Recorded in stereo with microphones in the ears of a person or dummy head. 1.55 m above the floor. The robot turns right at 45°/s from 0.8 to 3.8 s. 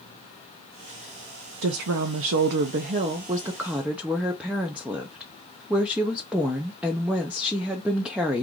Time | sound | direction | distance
1.6 | a woman speaking | 100° right | 0.6 m